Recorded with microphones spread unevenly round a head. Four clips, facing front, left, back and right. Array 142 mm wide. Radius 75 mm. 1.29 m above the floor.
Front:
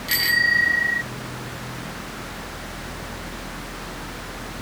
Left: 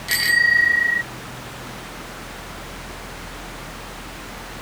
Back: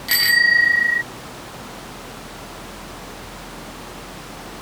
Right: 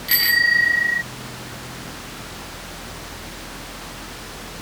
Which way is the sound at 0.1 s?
Straight behind.